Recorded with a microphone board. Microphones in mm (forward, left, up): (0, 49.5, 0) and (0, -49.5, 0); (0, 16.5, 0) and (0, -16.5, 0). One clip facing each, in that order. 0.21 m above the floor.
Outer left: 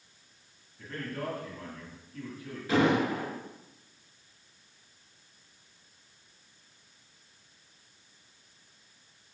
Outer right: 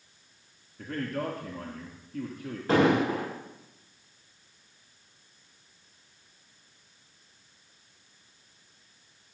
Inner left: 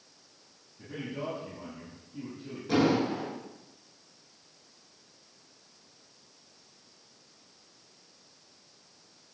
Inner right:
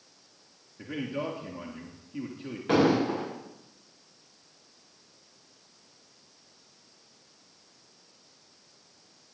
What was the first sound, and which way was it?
A man speaking, 60° right (ahead or behind).